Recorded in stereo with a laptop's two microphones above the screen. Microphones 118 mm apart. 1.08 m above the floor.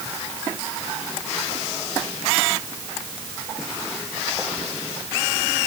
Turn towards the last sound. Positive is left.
No sound to turn to.